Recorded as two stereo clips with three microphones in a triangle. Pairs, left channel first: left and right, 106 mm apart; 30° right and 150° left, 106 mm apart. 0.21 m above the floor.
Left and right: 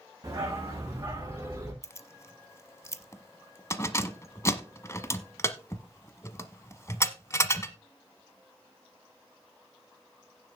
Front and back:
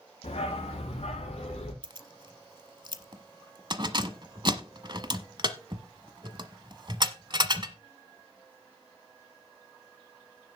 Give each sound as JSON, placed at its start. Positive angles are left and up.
{"t": 0.2, "sound": "a dog barking", "azimuth_deg": -35, "distance_m": 4.0}
{"t": 1.8, "sound": "keys jangling", "azimuth_deg": 140, "distance_m": 0.9}